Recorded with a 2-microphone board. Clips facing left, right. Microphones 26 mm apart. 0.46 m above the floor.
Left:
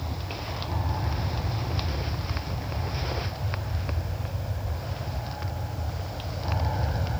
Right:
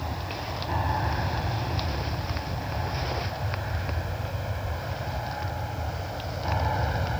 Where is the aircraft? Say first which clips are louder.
Right 2 dB; 55° right (ahead or behind); by 7.2 s 30° right (ahead or behind).